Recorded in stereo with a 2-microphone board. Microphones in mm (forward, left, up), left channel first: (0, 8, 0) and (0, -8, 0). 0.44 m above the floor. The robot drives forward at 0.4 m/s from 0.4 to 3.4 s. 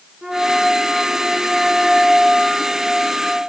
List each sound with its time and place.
0.2 s a flute: 35° right (ahead or behind), 1.9 m; by 3.5 s 25° right (ahead or behind), 3 m